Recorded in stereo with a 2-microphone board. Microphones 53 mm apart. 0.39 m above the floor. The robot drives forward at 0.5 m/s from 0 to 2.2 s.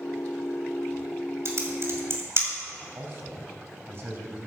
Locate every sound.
1.4 s typing on a keyboard: 55° right (ahead or behind), 2.5 m; by 2.5 s 50° right (ahead or behind), 2.5 m
3.0 s a man speaking: 45° right (ahead or behind), 3 m